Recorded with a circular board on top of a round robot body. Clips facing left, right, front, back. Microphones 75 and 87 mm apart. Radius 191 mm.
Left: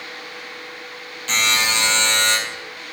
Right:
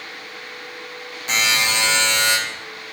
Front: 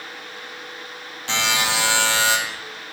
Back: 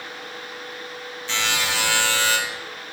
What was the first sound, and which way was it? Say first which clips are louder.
A buzzer: even, front 3 dB; 15° right.